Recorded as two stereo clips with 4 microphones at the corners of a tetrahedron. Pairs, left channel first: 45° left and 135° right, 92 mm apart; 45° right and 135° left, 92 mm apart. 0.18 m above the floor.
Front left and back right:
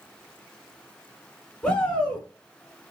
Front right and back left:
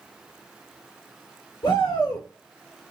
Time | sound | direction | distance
1.6 | a shout | 35° right | 2.5 m